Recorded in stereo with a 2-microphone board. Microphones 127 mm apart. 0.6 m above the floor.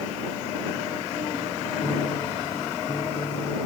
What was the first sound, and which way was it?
A piano, 40° left (ahead or behind).